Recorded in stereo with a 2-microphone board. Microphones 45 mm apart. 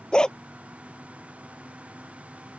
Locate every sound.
0.1 s a dog barking: 15° left (ahead or behind)